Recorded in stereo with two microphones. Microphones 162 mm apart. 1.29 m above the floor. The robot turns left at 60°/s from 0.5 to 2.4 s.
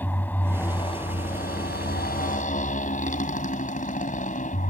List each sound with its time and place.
0.0 s a motorcycle: 170° left; by 4.7 s 55° left